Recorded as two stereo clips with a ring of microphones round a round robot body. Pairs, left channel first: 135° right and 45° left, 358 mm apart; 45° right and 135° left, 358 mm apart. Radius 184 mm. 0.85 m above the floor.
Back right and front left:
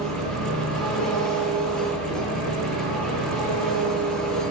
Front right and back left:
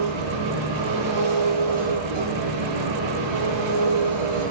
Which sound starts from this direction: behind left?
An engine running, at 0.0 s.